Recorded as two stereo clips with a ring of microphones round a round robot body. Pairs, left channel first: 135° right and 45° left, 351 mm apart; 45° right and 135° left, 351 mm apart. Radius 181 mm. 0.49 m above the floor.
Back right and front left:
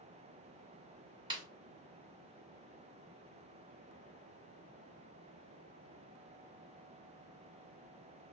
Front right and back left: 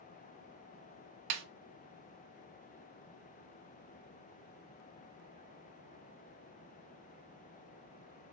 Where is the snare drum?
125° left, 0.6 m.